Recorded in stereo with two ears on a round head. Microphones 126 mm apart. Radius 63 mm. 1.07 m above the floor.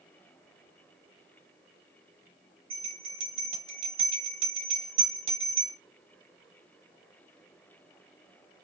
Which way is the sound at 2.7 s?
35° right (ahead or behind).